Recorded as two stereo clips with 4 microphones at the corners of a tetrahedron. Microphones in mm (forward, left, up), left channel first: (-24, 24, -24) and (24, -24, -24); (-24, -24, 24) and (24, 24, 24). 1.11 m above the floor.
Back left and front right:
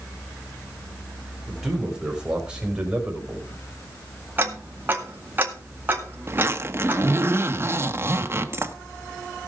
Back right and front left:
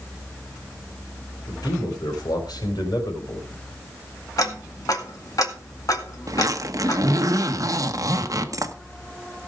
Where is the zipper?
10° left, 1.0 m.